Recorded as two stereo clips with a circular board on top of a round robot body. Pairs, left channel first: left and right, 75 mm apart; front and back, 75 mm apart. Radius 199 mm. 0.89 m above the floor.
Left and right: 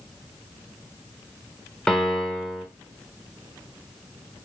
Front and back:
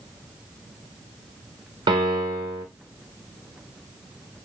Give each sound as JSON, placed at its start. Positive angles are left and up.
{"t": 1.9, "sound": "a piano", "azimuth_deg": 170, "distance_m": 1.3}